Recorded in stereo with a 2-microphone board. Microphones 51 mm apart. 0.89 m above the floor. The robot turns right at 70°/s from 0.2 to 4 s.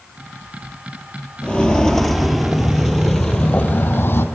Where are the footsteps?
20° left (ahead or behind), 0.9 m; by 4.2 s 45° left (ahead or behind), 1.3 m.